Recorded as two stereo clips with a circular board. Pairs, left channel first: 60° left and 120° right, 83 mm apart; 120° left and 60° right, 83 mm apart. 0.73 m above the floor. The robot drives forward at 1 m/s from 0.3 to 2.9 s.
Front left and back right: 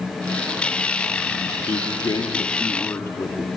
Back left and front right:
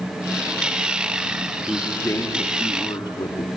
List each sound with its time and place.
1.7 s a man speaking: 50° left, 1.4 m; by 3.5 s 115° left, 1.2 m